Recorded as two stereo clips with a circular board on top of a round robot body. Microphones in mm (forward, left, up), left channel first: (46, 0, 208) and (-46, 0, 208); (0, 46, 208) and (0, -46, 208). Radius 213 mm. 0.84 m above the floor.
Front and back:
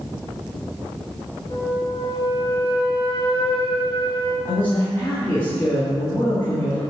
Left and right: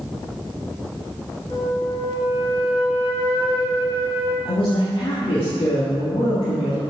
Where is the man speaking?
70° left, 1.6 m.